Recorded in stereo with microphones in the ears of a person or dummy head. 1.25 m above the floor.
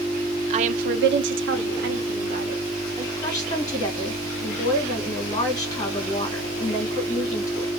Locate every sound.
0.5 s a woman speaking: 40° right (ahead or behind), 0.7 m
3.2 s a woman speaking: 20° left (ahead or behind), 1.9 m